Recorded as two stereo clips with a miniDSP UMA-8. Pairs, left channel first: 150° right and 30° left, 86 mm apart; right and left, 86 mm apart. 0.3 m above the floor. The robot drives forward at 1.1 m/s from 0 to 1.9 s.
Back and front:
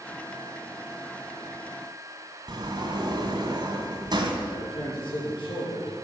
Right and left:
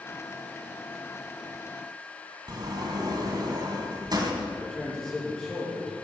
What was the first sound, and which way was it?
A sliding door, 60° left.